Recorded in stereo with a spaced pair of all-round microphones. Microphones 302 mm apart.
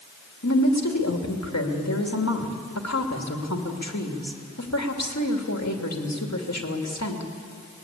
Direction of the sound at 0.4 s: 60° left (ahead or behind).